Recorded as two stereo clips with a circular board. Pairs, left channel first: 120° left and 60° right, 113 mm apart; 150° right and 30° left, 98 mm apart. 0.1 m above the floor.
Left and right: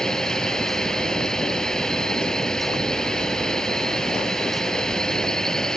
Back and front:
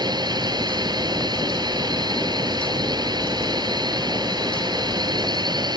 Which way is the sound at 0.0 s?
35° left.